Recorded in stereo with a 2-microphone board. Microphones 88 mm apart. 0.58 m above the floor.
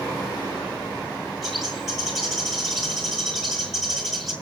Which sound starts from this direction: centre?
A bird, at 1.4 s.